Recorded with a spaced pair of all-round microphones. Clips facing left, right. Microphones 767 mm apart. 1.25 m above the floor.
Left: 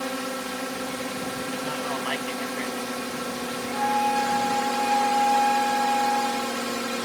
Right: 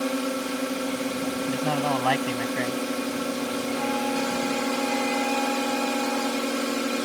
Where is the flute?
5° right (ahead or behind).